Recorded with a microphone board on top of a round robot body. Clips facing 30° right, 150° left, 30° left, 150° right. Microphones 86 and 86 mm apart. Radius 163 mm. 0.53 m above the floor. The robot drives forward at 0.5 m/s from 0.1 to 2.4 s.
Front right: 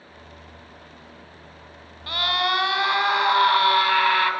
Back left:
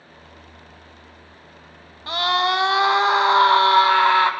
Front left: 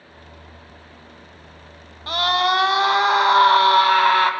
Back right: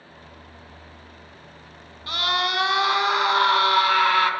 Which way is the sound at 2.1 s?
80° left.